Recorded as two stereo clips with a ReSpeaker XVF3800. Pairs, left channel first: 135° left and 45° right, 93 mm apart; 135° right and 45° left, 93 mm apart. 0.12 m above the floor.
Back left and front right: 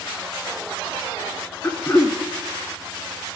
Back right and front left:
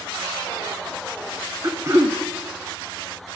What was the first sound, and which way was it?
Throat clearing, 85° left.